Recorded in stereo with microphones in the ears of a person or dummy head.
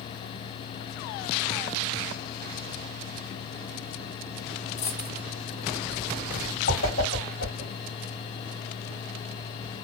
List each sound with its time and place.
4.8 s a dropped coin: 40° left (ahead or behind), 1.2 m
6.7 s a whoosh: 55° left (ahead or behind), 1.4 m